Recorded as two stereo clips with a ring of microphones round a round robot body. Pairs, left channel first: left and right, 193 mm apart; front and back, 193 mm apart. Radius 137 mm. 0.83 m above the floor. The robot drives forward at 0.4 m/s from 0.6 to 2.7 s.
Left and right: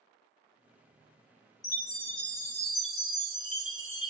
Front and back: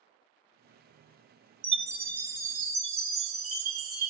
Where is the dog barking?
No dog barking in this recording.